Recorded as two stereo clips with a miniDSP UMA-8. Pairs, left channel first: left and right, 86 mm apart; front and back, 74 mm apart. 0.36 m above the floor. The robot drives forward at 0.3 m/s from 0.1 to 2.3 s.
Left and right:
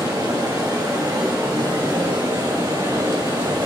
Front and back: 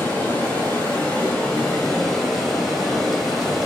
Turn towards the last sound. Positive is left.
turn(degrees=-85)